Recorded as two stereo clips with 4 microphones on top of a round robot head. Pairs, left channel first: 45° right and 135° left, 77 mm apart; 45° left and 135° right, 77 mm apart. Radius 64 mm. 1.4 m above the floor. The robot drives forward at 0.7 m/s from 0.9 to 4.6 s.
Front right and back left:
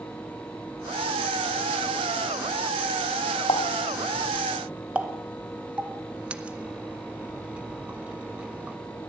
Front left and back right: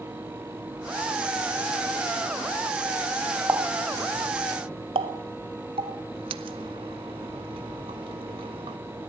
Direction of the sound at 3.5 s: 70° right.